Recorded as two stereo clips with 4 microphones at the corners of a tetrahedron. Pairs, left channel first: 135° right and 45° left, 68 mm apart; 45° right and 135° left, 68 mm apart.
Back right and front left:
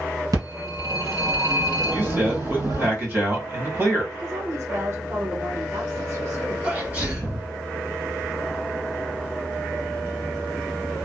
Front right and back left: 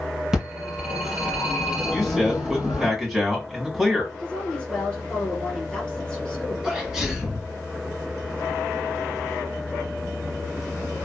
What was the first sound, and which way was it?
A phone ringing, 50° left.